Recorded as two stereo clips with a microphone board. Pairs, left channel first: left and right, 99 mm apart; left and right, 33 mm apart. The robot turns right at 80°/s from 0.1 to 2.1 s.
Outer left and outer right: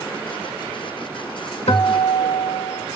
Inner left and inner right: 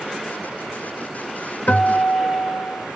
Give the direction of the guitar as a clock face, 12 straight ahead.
10 o'clock.